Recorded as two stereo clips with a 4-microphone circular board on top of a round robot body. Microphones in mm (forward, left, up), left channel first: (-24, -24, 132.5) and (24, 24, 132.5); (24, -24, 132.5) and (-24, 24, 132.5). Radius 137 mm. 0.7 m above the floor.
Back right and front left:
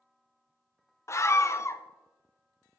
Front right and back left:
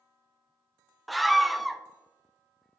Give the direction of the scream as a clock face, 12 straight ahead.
5 o'clock.